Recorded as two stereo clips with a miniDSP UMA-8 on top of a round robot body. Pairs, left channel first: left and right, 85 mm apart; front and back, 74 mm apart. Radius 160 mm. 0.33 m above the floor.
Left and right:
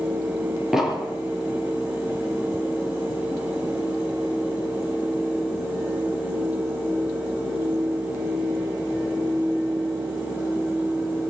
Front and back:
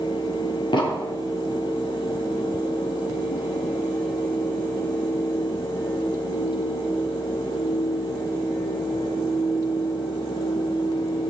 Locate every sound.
0.7 s an explosion: 5° right, 3 m